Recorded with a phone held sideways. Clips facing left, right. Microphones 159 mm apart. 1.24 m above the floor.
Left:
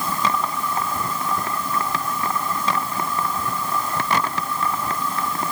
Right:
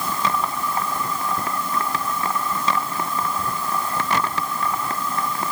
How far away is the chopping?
No chopping in this recording.